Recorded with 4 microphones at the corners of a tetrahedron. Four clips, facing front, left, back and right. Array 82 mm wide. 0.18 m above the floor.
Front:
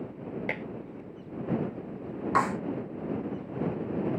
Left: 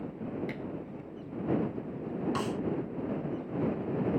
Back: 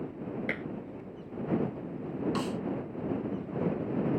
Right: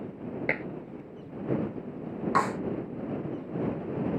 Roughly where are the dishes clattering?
Right.